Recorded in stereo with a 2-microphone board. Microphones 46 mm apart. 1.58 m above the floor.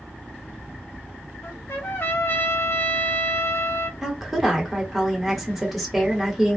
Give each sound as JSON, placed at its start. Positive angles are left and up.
{"t": 1.4, "sound": "a trumpet", "side_deg": 60, "distance_m": 0.8}
{"t": 4.0, "sound": "a woman speaking", "side_deg": 0, "distance_m": 1.1}